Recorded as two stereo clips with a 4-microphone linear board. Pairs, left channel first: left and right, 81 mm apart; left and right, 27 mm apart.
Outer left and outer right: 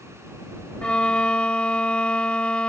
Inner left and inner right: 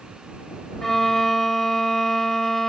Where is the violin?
10° left (ahead or behind).